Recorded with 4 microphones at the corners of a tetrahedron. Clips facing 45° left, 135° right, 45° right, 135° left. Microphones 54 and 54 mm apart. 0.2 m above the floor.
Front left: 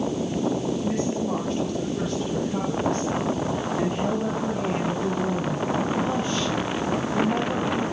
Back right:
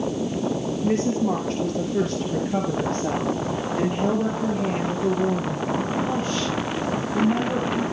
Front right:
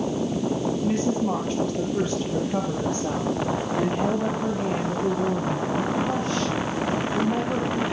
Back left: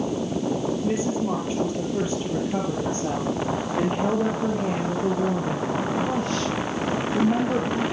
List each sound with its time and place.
0.8 s a woman speaking: 145° right, 4.5 m; by 7.8 s 150° left, 6 m